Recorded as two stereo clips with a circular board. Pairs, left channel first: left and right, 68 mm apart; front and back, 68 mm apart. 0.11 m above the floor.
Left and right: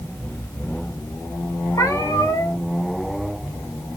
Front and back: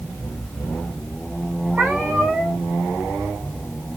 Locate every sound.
1.7 s a cat meowing: 120° left, 3 m